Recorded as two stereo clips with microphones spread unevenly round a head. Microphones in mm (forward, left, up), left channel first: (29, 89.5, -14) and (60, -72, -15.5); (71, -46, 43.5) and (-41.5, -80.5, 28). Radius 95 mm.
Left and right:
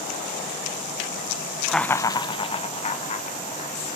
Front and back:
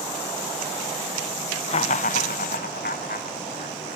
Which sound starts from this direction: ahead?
Laughter, at 1.7 s.